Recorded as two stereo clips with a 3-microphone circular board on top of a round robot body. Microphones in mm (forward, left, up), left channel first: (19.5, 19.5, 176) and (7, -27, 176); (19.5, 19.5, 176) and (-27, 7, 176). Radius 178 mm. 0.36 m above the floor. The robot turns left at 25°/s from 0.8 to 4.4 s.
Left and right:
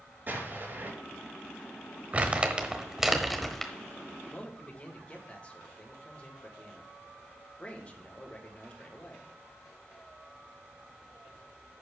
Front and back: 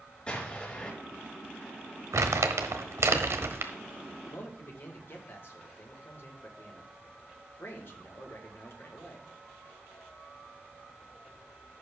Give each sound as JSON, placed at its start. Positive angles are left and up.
{"t": 0.3, "sound": "an explosion", "azimuth_deg": -50, "distance_m": 4.5}
{"t": 2.1, "sound": "crumpling", "azimuth_deg": -165, "distance_m": 1.1}
{"t": 4.3, "sound": "a man speaking", "azimuth_deg": 20, "distance_m": 2.5}